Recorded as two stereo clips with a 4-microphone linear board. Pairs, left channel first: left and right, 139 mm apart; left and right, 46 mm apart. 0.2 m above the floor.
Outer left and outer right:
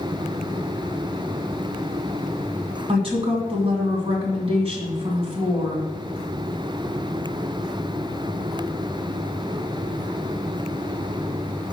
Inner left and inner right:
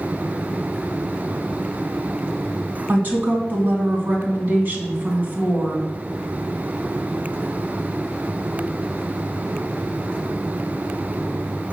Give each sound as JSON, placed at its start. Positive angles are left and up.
{"t": 2.9, "sound": "a woman speaking", "side_deg": -40, "distance_m": 2.0}